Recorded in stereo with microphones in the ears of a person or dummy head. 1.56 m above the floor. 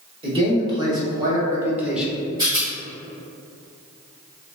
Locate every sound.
0.2 s a man speaking: 30° right (ahead or behind), 2.0 m; by 2.1 s centre (ahead or behind), 0.9 m
2.4 s a rattle: 20° right (ahead or behind), 1.9 m